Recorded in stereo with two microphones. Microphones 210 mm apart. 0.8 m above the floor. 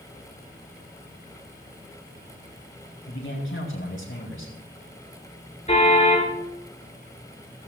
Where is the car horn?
30° left (ahead or behind), 5 m.